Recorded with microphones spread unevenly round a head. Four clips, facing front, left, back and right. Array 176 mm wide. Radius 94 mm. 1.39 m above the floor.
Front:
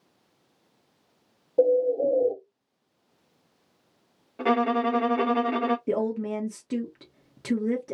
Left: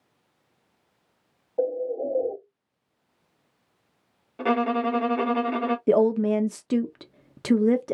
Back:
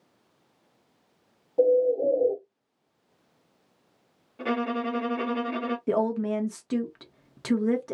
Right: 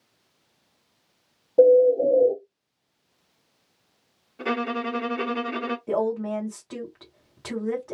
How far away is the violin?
About 0.7 m.